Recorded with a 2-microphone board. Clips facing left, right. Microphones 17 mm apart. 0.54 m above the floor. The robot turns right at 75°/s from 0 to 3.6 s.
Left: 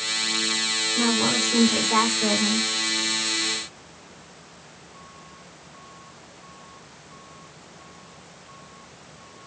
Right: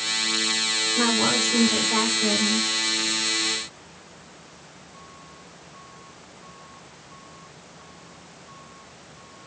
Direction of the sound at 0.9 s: 55° right.